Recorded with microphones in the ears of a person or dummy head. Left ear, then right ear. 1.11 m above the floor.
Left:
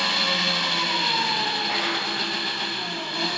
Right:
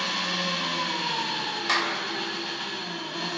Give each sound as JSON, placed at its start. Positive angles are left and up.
{"t": 0.0, "sound": "an engine running", "side_deg": 25, "distance_m": 2.5}
{"t": 1.7, "sound": "a clap", "side_deg": -55, "distance_m": 4.0}